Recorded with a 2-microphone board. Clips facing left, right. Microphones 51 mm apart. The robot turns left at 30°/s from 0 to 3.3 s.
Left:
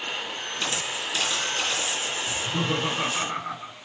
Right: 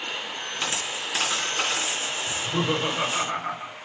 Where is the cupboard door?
No cupboard door in this recording.